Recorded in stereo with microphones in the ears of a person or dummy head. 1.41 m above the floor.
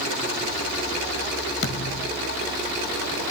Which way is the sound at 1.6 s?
60° left (ahead or behind).